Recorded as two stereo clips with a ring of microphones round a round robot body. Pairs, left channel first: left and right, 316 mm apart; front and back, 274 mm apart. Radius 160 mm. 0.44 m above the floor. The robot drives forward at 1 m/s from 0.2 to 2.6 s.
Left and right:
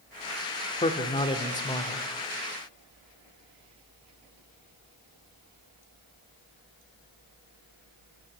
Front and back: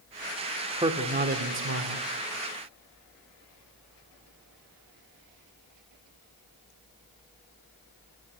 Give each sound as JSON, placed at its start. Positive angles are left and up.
{"t": 0.8, "sound": "a man speaking", "azimuth_deg": 135, "distance_m": 1.3}